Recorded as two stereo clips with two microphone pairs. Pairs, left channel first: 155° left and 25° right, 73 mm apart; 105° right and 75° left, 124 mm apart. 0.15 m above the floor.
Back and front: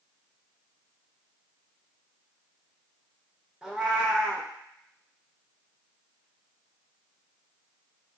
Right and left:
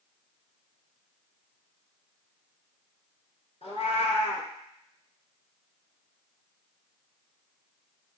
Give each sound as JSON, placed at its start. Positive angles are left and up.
{"t": 3.6, "sound": "a cat meowing", "azimuth_deg": -100, "distance_m": 0.9}